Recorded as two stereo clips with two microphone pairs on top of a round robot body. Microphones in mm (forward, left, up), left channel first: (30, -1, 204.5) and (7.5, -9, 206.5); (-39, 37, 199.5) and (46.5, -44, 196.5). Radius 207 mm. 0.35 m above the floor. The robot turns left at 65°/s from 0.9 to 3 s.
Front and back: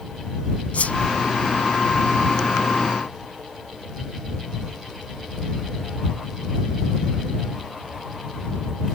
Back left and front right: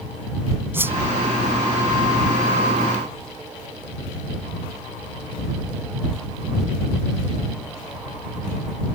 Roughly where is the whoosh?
Ahead left.